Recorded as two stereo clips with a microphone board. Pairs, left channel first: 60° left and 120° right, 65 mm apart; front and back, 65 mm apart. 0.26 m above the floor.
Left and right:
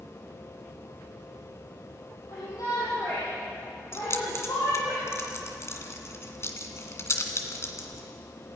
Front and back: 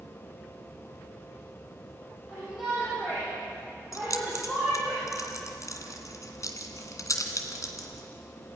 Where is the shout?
95° left, 8 m.